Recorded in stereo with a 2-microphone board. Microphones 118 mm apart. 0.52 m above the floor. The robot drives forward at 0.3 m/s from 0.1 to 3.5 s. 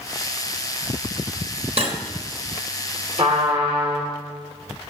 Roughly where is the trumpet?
Right.